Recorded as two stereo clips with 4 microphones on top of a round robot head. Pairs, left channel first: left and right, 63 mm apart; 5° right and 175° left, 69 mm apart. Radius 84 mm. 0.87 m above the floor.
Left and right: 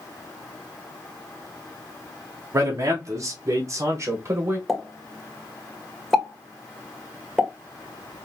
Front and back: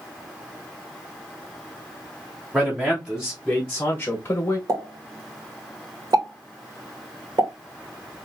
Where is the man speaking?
120° right, 1.2 m; by 4.6 s 50° right, 1.1 m.